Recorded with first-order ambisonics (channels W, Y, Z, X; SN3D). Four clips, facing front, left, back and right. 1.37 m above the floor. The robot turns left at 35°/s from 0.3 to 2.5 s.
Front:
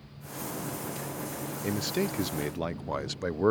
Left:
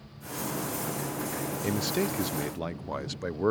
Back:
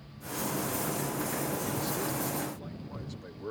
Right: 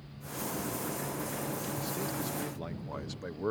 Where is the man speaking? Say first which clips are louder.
Left 7 dB, front 3 dB; 60° left; by 3.5 s 30° left.